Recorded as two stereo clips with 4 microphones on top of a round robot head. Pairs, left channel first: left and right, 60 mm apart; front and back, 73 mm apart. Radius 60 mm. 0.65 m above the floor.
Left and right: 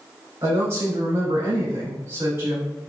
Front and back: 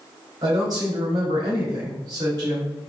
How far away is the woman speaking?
About 3 m.